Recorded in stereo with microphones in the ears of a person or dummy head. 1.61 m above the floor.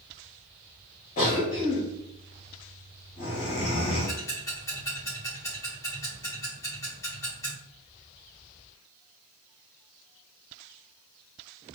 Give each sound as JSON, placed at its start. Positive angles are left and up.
{"t": 1.2, "sound": "a cough", "side_deg": 45, "distance_m": 2.0}
{"t": 4.1, "sound": "ticking", "side_deg": 15, "distance_m": 2.0}